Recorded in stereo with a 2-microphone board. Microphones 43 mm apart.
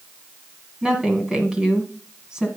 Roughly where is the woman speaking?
Centre.